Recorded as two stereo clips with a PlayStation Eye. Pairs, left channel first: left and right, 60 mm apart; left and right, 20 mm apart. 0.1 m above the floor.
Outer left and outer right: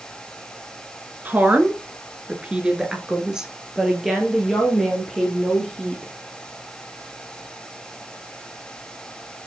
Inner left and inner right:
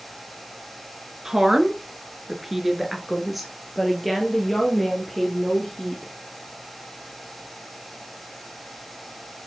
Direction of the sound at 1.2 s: 30° right (ahead or behind).